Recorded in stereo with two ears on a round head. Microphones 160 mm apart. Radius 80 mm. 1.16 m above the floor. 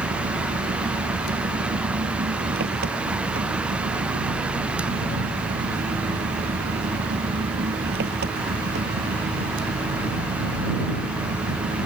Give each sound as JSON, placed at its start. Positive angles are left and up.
{"t": 0.0, "sound": "an engine running", "side_deg": -60}